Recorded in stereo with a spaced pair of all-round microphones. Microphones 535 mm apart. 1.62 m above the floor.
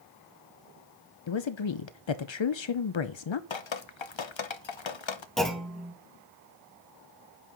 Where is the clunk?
Centre (ahead or behind), 1.8 m.